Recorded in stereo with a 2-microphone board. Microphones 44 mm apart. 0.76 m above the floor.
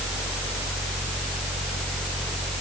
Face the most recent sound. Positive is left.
No sound to turn to.